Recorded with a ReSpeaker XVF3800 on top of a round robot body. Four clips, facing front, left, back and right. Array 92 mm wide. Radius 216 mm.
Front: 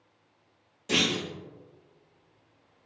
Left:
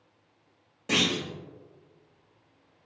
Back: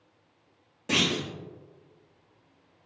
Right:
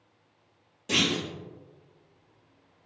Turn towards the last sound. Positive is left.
turn(degrees=135)